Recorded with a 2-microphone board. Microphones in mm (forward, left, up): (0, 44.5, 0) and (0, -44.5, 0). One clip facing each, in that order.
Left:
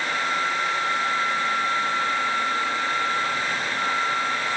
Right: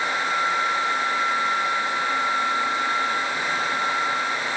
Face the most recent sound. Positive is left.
No sound to turn to.